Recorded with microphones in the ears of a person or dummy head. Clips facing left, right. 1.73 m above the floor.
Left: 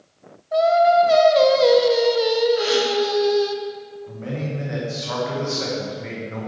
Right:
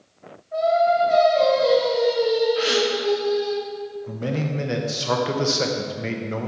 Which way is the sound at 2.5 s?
40° right (ahead or behind).